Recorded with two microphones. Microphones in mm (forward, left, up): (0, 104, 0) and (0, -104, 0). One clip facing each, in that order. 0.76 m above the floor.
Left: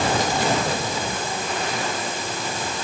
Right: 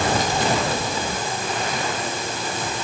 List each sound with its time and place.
Only background noise.